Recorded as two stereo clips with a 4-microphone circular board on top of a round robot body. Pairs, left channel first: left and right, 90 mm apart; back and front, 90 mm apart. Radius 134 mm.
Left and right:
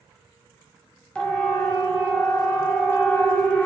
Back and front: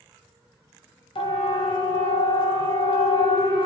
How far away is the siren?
About 6 m.